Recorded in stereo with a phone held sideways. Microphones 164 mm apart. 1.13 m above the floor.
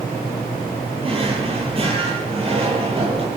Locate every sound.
1.0 s a drawer: 35° right (ahead or behind), 6 m